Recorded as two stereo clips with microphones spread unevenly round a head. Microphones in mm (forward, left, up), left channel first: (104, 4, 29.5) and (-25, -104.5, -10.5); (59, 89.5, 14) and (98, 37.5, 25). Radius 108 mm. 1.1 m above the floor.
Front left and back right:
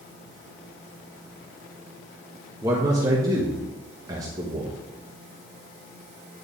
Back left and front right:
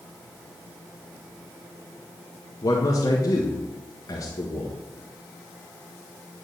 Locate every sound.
2.6 s a man speaking: 155° left, 1.4 m